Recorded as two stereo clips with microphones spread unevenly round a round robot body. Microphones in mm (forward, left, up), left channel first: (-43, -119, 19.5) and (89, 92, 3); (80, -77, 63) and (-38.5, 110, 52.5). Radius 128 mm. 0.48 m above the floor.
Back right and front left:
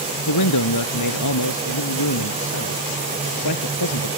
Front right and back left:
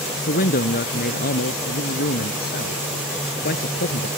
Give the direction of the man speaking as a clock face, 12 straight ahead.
4 o'clock.